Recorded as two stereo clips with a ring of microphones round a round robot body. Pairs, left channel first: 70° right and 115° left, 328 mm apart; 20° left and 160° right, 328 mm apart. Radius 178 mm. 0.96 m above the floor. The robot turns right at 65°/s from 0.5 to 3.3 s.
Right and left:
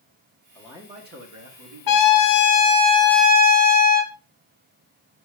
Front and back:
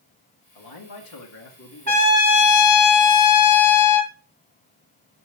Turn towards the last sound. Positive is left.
turn(degrees=50)